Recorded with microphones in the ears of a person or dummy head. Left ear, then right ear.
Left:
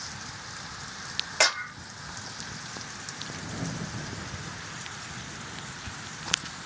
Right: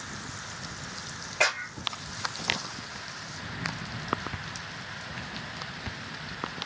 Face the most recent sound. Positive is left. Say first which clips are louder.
# left 1 dB
turn(degrees=85)